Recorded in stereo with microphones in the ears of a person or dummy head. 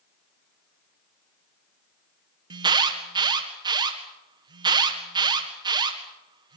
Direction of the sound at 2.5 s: 20° right (ahead or behind).